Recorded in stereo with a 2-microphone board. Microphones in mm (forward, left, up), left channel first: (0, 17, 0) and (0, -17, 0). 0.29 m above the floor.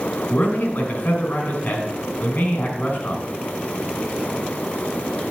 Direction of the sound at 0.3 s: 60° left (ahead or behind).